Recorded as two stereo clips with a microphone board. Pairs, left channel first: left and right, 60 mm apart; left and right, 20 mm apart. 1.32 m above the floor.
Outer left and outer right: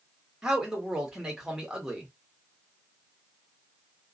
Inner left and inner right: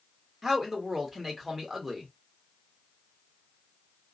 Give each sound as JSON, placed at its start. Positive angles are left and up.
{"t": 0.4, "sound": "a man speaking", "side_deg": -10, "distance_m": 1.3}